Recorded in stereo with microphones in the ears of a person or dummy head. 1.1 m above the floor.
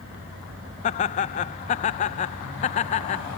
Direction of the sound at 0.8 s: 35° left (ahead or behind).